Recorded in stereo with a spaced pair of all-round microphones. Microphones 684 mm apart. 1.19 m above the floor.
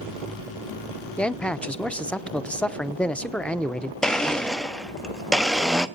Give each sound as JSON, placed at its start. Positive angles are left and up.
{"t": 1.2, "sound": "a man speaking", "side_deg": 0, "distance_m": 0.5}
{"t": 4.0, "sound": "a blender", "side_deg": 0, "distance_m": 0.6}